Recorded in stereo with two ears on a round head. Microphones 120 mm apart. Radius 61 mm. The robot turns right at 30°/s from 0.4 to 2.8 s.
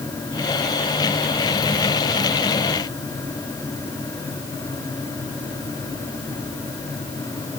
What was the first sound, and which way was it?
Only background noise.